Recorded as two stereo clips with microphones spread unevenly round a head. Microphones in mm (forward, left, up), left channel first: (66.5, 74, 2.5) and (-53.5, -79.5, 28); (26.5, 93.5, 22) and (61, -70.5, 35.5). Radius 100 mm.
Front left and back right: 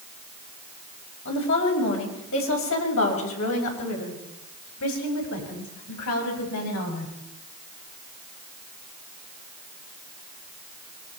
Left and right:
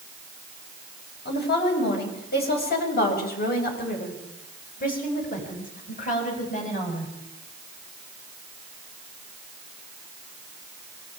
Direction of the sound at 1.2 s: 80° left.